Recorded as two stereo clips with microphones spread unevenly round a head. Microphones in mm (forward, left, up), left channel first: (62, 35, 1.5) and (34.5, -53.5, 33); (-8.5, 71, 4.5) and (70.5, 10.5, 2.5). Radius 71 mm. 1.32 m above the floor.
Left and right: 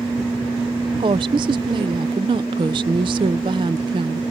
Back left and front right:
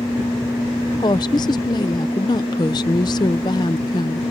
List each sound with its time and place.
1.0 s a woman speaking: 165° right